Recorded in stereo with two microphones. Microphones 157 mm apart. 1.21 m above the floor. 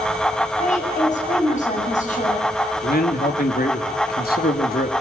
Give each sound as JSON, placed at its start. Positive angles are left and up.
{"t": 0.6, "sound": "a woman speaking", "side_deg": 55, "distance_m": 8.5}
{"t": 2.8, "sound": "a man speaking", "side_deg": 80, "distance_m": 3.0}